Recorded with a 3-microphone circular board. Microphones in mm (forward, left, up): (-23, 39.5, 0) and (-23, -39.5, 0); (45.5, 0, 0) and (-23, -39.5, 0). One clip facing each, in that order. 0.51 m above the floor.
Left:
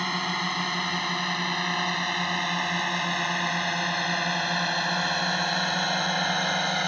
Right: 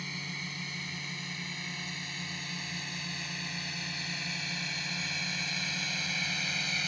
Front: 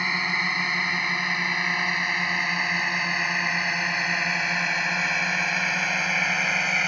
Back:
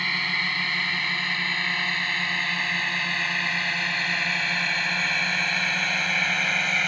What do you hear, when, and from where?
0.0 s a drone: 100° left; by 6.9 s 110° left